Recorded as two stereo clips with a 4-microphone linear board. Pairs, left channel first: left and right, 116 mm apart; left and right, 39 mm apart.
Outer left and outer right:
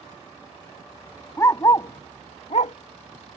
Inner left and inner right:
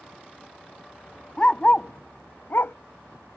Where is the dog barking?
25° left (ahead or behind); by 2.8 s 75° left (ahead or behind).